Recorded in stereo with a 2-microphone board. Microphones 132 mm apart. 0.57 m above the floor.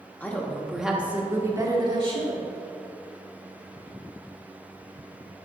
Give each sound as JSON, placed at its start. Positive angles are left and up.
{"t": 0.2, "sound": "a woman speaking", "side_deg": 10, "distance_m": 1.1}